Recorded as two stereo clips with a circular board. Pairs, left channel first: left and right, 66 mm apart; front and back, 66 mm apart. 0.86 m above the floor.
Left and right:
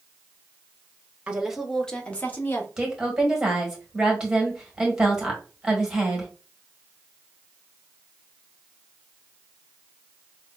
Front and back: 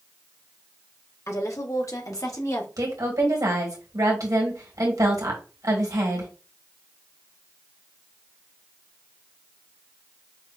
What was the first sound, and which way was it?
A woman speaking, 20° right.